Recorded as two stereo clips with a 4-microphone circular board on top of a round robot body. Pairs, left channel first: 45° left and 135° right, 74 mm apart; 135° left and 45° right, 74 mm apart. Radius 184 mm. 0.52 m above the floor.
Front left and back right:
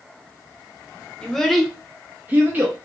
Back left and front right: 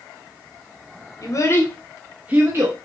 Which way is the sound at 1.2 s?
125° left.